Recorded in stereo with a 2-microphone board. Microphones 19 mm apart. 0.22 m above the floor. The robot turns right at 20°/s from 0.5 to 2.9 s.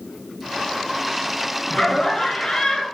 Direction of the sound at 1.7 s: 25° left (ahead or behind).